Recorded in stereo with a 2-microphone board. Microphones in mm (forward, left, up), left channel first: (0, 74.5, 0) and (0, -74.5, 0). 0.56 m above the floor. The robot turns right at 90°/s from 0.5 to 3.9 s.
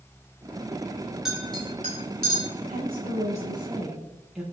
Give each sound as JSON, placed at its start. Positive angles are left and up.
{"t": 1.2, "sound": "a clink", "side_deg": -5, "distance_m": 5.0}
{"t": 2.7, "sound": "a woman speaking", "azimuth_deg": -110, "distance_m": 7.5}